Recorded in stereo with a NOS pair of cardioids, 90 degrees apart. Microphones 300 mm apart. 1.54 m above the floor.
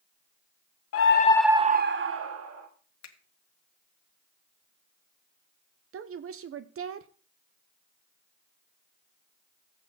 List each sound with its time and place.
0.9 s a scream: 55° left, 0.9 m; by 2.7 s 55° right, 2 m
3.0 s a finger snap: 65° left, 1.7 m
5.9 s a woman speaking: 50° right, 0.8 m